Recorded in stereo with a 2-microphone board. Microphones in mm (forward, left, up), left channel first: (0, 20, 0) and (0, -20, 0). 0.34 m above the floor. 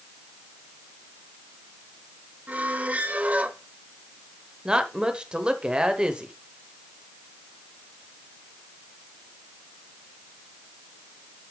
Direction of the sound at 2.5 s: 40° right (ahead or behind).